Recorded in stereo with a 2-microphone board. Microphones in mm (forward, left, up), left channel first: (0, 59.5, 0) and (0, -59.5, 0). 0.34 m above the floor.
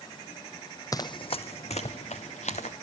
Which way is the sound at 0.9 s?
30° left (ahead or behind).